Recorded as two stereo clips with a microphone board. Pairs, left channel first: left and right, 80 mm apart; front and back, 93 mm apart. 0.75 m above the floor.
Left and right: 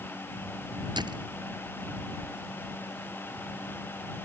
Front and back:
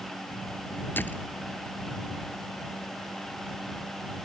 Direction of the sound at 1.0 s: 70° right.